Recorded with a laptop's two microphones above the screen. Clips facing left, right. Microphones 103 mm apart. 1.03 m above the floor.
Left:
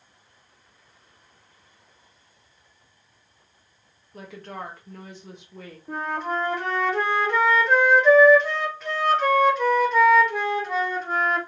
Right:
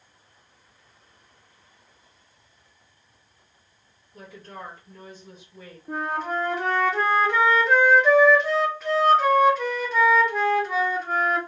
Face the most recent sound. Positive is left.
turn(degrees=0)  # may be behind; listen again after turning